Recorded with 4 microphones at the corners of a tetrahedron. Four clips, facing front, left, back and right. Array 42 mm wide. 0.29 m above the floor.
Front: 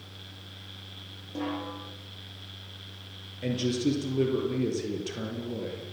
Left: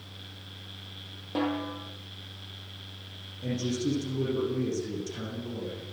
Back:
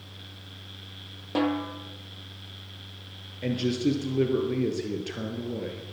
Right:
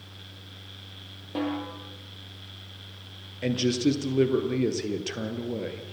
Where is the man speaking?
105° right, 5.5 m.